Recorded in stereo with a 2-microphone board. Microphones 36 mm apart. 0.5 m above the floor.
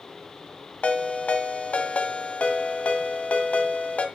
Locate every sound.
0.8 s a ringtone: 40° left (ahead or behind), 1.9 m